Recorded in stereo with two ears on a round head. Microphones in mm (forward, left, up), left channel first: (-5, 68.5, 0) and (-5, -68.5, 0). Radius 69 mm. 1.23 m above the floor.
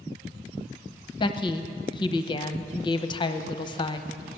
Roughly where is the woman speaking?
Left.